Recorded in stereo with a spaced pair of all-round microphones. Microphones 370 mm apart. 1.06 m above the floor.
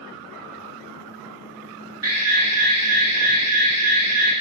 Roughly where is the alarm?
Right.